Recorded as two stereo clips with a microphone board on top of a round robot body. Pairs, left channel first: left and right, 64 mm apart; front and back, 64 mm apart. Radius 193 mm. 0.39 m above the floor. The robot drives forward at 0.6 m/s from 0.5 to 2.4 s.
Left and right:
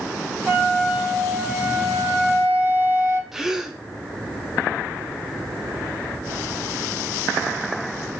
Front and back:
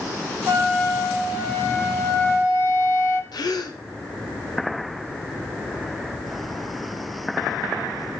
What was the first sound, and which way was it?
A flute, 20° right.